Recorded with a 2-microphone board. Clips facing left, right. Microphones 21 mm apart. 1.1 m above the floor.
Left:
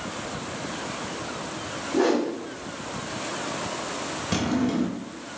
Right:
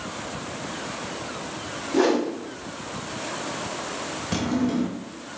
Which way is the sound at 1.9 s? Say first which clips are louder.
Right 1 dB; 50° right (ahead or behind).